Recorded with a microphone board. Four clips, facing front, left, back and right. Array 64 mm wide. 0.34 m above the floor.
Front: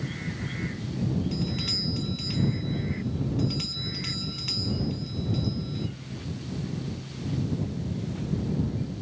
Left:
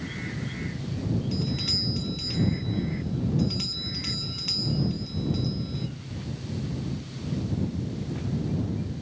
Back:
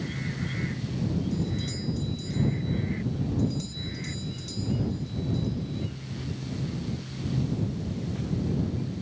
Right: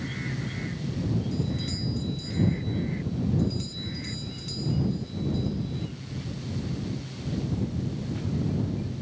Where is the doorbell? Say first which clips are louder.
Even, even; 30° left.